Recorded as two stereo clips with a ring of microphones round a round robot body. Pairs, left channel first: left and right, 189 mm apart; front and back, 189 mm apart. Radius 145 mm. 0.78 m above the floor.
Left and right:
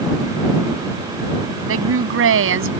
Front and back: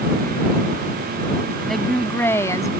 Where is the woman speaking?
90° right; by 2.7 s 80° right.